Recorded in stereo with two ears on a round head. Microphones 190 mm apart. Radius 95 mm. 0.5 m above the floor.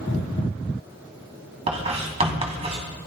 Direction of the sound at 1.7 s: 30° right (ahead or behind).